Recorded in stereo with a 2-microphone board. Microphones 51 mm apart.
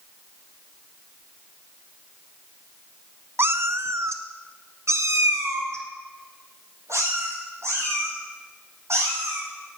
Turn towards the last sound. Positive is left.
turn(degrees=-60)  # may be behind; listen again after turning